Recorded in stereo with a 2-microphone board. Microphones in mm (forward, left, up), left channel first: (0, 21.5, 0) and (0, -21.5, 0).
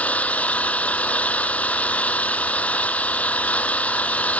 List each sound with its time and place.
0.0 s an engine running: 35° left (ahead or behind)